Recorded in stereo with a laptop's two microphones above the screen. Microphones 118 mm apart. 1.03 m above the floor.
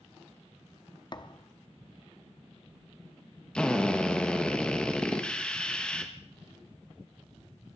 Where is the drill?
10° left (ahead or behind), 1.3 m.